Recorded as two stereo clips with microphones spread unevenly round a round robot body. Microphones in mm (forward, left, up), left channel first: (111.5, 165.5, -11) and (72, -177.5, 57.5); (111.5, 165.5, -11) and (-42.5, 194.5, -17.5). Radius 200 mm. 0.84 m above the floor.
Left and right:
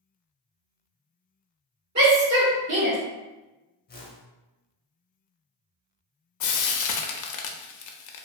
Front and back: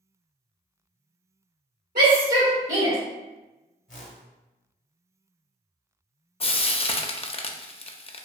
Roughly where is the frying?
Ahead left.